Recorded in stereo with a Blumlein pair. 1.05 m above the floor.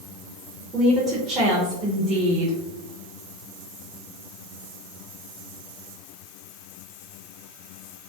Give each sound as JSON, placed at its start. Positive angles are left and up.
{"t": 0.7, "sound": "a woman speaking", "azimuth_deg": -20, "distance_m": 0.6}